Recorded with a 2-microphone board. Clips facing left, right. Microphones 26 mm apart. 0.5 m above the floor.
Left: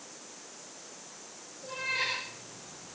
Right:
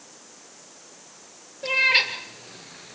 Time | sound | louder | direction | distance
1.6 | a cat meowing | right 12 dB | 80° right | 5 m